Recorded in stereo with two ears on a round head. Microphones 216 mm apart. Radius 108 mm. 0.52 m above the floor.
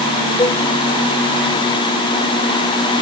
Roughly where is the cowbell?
Centre.